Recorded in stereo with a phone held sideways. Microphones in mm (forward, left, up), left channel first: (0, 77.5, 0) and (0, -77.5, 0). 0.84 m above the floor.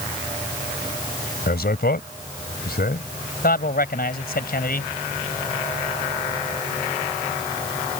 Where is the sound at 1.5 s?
80° left.